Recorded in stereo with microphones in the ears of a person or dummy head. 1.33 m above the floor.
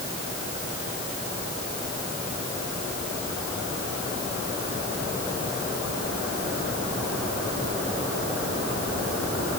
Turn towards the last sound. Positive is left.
No sound to turn to.